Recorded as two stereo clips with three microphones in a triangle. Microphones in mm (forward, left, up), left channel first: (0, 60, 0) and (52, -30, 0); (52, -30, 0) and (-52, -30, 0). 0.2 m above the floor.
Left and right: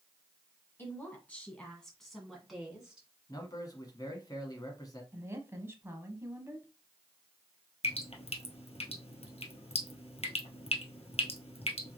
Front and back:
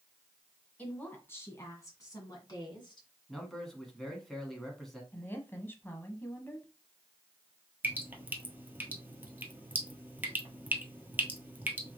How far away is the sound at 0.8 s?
About 1.8 m.